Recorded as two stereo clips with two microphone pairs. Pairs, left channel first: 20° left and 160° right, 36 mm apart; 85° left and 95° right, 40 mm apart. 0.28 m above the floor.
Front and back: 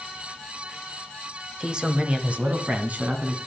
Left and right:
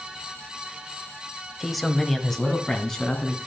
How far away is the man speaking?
About 0.9 m.